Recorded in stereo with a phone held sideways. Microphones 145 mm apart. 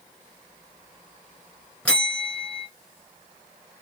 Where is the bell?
5° left (ahead or behind), 1.8 m.